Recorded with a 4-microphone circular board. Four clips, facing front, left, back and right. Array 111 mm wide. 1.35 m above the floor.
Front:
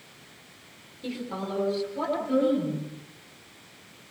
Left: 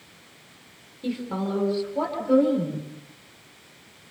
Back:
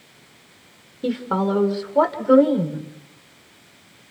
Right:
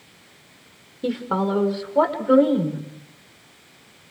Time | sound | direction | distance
1.0 | a woman speaking | 135° right | 4.5 m